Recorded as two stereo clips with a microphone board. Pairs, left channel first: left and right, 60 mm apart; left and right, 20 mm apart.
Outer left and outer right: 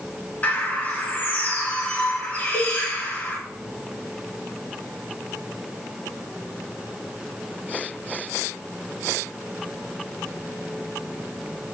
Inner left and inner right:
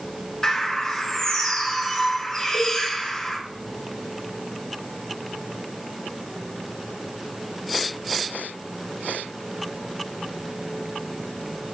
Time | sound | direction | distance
0.4 | a bird | 25° left (ahead or behind) | 0.7 m
2.5 | a cowbell | 50° right (ahead or behind) | 0.8 m